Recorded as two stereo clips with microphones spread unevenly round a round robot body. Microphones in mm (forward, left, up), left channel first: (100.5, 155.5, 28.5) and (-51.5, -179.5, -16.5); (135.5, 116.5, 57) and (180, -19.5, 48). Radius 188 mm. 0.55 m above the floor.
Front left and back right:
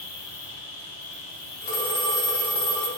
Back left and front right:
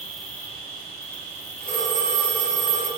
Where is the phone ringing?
145° left, 1.3 m.